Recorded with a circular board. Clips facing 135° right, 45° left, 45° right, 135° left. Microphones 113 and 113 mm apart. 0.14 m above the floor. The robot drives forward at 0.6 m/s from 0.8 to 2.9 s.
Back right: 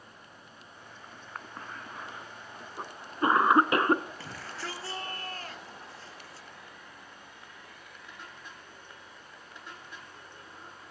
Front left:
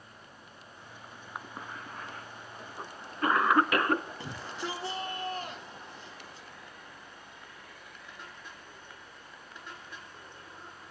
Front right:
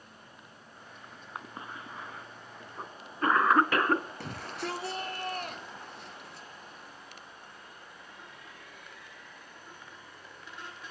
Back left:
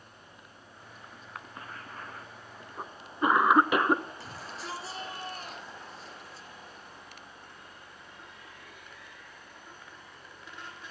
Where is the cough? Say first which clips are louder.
Front left 1 dB, front right 2 dB; 15° right, 1.1 m; by 4.0 s 165° right, 1.1 m.